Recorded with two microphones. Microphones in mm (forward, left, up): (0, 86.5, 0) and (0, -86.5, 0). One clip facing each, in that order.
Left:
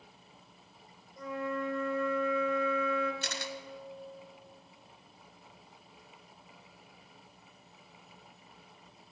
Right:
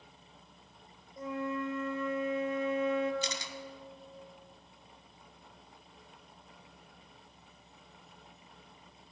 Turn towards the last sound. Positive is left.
turn(degrees=60)  # may be behind; listen again after turning